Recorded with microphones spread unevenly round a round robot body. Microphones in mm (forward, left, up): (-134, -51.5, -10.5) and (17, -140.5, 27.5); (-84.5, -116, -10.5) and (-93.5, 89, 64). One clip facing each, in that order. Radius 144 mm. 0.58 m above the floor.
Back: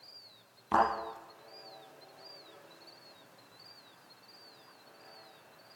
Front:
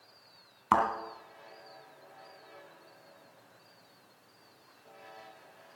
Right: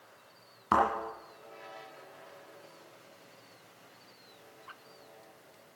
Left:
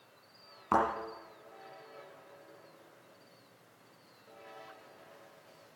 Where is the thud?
5° right, 2.5 m.